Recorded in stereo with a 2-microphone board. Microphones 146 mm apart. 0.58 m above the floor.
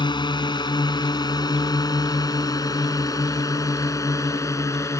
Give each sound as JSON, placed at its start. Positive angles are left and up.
{"t": 0.0, "sound": "a drone", "side_deg": 30}